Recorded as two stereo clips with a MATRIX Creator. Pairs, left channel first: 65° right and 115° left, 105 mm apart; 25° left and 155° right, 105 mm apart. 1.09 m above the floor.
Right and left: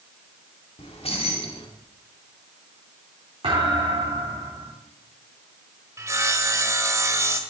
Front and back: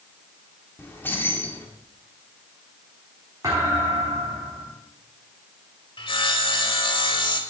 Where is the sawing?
55° left, 1.6 m.